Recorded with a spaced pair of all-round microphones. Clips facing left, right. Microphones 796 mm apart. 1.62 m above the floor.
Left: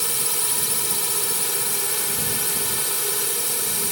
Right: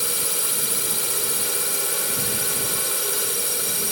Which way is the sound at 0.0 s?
35° left (ahead or behind).